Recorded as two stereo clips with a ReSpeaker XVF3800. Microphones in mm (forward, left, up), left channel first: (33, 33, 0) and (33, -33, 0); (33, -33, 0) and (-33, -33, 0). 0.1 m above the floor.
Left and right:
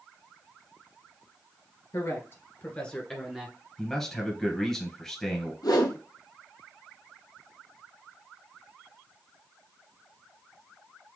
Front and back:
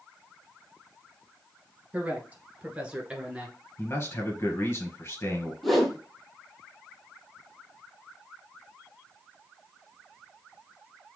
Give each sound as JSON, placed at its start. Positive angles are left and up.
{"t": 1.9, "sound": "a man speaking", "azimuth_deg": 115, "distance_m": 2.0}
{"t": 3.8, "sound": "a man speaking", "azimuth_deg": 10, "distance_m": 1.8}
{"t": 5.6, "sound": "a whoosh", "azimuth_deg": 85, "distance_m": 1.1}